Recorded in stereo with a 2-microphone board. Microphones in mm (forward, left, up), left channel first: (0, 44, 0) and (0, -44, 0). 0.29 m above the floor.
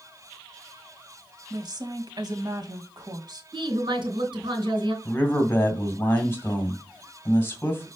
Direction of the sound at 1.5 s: 50° right (ahead or behind).